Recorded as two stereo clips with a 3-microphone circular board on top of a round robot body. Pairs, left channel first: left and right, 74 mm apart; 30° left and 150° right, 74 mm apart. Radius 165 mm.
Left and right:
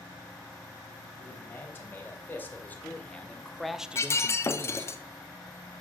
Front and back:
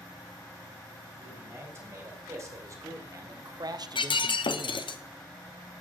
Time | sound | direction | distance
1.2 | a man speaking | 150° left | 4 m
4.0 | breaking glass | 35° left | 0.9 m